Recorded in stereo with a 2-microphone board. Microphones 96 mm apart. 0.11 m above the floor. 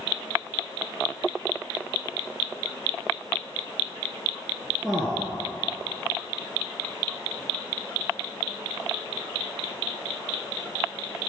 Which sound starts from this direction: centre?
A man speaking, at 4.8 s.